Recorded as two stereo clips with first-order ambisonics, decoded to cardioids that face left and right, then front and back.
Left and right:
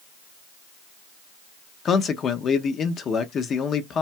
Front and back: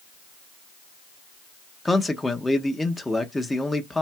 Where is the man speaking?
80° left, 0.6 m.